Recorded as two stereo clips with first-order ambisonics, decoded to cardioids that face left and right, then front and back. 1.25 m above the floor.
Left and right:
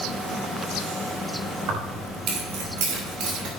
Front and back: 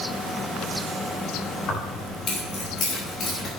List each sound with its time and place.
1.7 s keys jangling: 50° right, 3 m